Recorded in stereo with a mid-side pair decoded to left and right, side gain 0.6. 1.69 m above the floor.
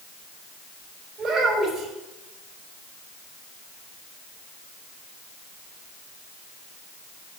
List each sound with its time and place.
1.2 s a child speaking: 45° right, 5 m